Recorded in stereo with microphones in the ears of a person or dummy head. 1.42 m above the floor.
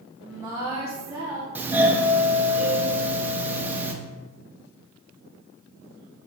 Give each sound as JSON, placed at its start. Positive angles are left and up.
{"t": 0.2, "sound": "a woman speaking", "side_deg": -10, "distance_m": 0.9}
{"t": 1.6, "sound": "a doorbell", "side_deg": -10, "distance_m": 0.8}